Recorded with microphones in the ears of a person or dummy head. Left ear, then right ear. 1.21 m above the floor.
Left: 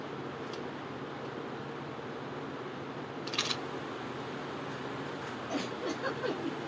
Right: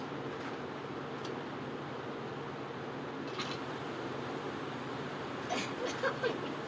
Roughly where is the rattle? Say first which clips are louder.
Left 8 dB; left.